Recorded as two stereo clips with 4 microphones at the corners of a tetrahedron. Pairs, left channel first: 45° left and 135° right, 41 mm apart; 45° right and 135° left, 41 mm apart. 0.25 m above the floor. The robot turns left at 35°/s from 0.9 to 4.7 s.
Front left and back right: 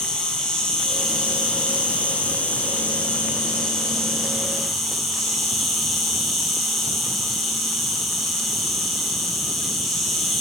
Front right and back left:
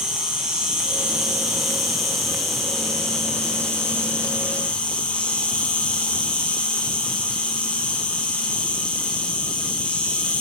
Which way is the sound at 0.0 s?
90° left.